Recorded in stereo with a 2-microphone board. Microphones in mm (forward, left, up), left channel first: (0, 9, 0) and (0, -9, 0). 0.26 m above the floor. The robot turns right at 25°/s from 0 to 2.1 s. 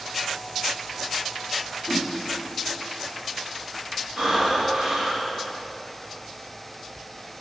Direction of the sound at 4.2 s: 60° right (ahead or behind).